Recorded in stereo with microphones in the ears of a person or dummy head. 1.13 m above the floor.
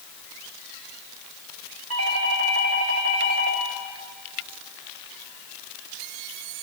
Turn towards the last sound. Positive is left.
turn(degrees=-75)  # may be behind; listen again after turning